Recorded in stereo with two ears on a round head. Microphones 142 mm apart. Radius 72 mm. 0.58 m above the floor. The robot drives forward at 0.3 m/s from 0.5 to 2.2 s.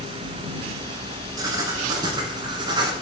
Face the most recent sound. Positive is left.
turn(degrees=-25)  # may be behind; listen again after turning